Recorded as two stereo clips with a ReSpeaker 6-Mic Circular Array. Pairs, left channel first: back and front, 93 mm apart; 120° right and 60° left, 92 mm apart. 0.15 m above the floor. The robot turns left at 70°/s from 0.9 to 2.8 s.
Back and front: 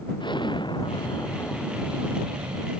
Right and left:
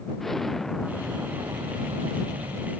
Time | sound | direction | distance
0.2 | an explosion | 155° left | ?